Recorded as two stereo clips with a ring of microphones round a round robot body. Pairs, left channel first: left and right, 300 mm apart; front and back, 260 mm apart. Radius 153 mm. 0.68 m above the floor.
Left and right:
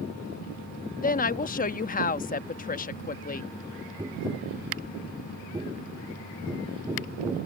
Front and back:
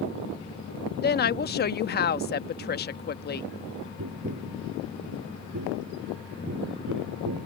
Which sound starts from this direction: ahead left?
A woman speaking, at 1.0 s.